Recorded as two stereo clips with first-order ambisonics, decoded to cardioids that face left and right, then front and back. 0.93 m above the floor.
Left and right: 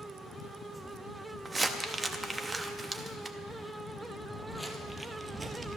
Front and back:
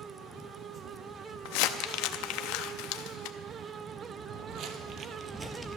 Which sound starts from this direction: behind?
Footsteps, at 4.2 s.